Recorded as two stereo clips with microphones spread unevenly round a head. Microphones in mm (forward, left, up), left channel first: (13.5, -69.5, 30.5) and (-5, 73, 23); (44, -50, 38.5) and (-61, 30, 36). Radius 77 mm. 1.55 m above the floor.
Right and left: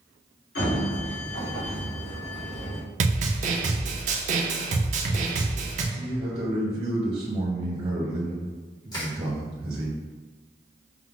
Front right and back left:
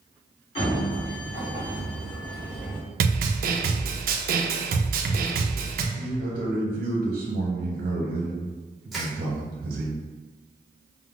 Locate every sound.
0.6 s a sliding door: 90° right, 1.9 m
3.0 s a snare drum: 135° left, 0.6 m
5.9 s a man speaking: 150° left, 0.8 m
8.9 s crushing: 125° right, 1.0 m